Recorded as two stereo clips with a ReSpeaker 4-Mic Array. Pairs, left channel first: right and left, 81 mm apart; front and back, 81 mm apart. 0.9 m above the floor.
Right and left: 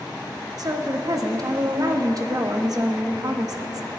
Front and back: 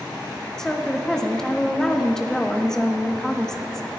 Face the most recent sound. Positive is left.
turn(degrees=80)